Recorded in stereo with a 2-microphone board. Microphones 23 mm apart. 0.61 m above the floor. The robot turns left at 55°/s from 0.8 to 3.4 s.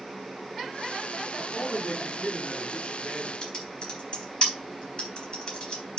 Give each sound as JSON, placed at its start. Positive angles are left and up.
{"t": 1.4, "sound": "a man speaking", "azimuth_deg": 135, "distance_m": 5.0}
{"t": 3.4, "sound": "typing on a keyboard", "side_deg": 40, "distance_m": 3.5}